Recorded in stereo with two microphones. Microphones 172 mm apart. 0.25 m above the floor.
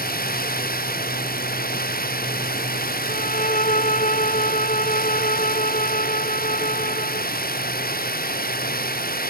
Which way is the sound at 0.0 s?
65° left (ahead or behind).